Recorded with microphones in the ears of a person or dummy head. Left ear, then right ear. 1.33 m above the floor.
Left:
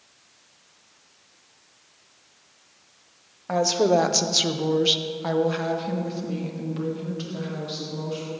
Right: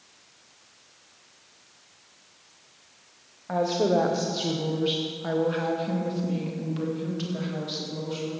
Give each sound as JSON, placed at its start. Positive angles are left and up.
{"t": 3.5, "sound": "a woman speaking", "side_deg": 75, "distance_m": 1.8}